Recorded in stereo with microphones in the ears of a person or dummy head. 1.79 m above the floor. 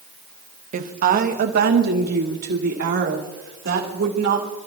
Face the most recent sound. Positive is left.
turn(degrees=-65)  # may be behind; listen again after turning